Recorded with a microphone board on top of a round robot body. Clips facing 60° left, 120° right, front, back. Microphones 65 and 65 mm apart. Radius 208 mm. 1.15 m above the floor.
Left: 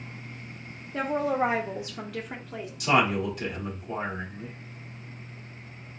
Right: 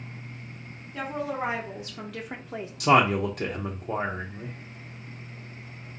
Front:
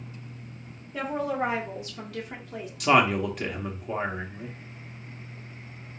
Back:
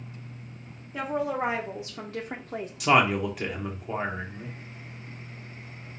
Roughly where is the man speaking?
Right.